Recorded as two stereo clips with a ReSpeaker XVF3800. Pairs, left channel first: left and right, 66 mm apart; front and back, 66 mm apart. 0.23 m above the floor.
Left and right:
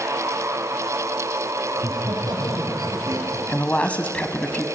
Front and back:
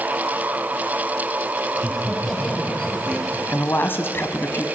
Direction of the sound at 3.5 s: 30° left.